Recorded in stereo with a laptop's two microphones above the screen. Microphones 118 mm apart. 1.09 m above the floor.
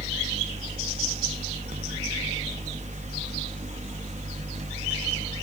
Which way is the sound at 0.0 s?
80° right.